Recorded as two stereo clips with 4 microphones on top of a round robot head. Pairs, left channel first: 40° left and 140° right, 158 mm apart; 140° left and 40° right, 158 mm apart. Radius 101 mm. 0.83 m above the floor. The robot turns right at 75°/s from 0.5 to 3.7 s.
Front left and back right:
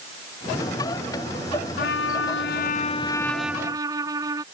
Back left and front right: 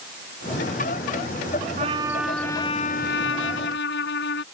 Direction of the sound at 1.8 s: 10° left.